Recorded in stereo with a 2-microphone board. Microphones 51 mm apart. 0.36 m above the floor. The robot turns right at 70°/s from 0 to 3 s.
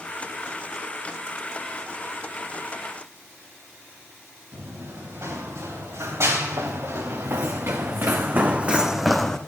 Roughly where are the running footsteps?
Right.